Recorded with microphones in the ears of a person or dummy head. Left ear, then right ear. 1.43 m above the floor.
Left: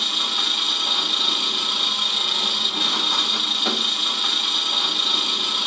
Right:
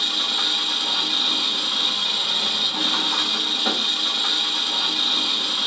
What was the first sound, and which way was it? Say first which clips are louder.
An engine running: even; 5° left (ahead or behind).